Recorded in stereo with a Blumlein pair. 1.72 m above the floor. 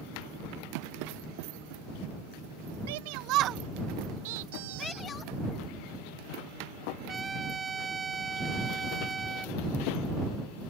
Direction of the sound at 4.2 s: 50° right.